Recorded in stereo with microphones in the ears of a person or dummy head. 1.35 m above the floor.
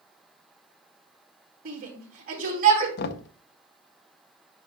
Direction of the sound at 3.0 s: 60° left (ahead or behind).